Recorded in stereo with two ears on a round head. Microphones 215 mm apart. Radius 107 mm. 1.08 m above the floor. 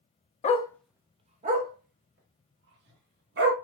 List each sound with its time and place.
0.4 s a dog barking: 25° left (ahead or behind), 0.6 m; by 3.5 s 50° right (ahead or behind), 2.5 m